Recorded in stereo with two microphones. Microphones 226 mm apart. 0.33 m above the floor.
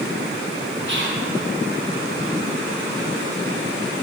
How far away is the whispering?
About 2.5 m.